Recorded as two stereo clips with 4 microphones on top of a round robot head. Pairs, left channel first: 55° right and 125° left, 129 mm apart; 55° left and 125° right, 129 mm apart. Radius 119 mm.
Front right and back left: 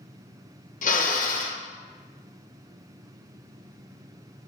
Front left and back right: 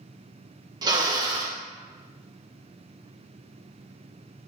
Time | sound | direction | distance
0.8 | a drill | 65° right | 1.9 m